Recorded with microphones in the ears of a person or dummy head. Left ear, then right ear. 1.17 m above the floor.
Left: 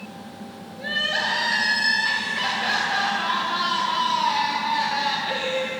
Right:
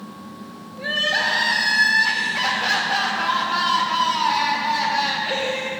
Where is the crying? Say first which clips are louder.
Right 3 dB; 10° right (ahead or behind), 1.6 m.